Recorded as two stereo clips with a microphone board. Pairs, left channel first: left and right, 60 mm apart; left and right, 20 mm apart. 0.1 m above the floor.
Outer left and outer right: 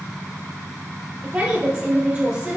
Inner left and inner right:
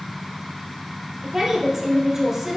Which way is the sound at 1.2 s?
10° right (ahead or behind).